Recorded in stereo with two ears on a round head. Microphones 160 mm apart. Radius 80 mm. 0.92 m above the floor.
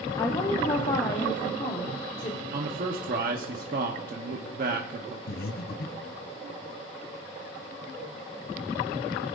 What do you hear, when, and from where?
0.2 s a woman speaking: 20° left (ahead or behind), 0.8 m; by 2.4 s 30° left (ahead or behind), 2 m
2.5 s a man speaking: 50° right (ahead or behind), 1.2 m
5.3 s breathing: 55° left (ahead or behind), 1.1 m